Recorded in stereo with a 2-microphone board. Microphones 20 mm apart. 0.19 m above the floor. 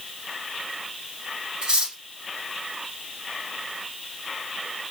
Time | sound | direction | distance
1.6 | cutlery clinking | 50° right (ahead or behind) | 1.0 m